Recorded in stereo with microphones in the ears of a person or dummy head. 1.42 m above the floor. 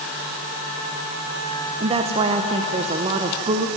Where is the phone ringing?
No phone ringing in this recording.